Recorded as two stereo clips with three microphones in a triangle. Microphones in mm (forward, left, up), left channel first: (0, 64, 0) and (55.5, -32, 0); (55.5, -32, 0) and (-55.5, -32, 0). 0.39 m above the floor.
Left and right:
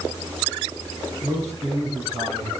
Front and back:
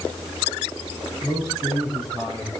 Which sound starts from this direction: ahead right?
A man speaking, at 1.2 s.